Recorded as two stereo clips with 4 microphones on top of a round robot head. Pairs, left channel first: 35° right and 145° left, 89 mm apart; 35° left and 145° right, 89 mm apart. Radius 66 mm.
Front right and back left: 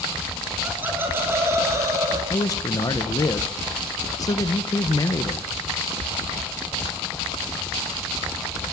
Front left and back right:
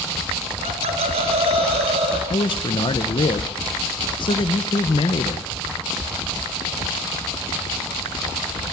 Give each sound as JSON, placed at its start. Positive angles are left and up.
{"t": 0.6, "sound": "laughter", "azimuth_deg": -145, "distance_m": 5.5}
{"t": 2.3, "sound": "a man speaking", "azimuth_deg": 10, "distance_m": 1.2}